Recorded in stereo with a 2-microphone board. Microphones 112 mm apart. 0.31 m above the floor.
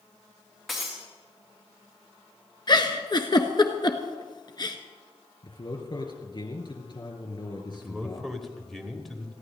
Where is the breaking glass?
Centre (ahead or behind), 3.5 m.